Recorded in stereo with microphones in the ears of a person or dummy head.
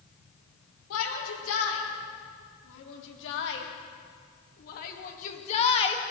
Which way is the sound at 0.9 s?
80° left.